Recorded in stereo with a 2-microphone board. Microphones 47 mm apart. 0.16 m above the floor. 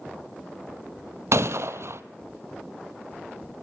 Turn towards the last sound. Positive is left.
turn(degrees=-75)  # may be behind; listen again after turning